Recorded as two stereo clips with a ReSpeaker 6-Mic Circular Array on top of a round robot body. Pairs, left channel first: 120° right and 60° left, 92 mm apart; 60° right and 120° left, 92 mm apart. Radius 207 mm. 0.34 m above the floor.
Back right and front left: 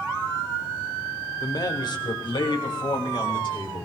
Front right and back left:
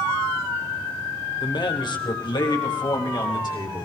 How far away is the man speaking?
About 1.9 m.